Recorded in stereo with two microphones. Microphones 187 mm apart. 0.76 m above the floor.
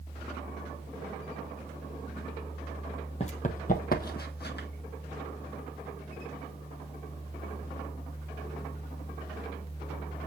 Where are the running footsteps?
35° left (ahead or behind), 1.1 m; by 4.7 s 65° left (ahead or behind), 1.6 m.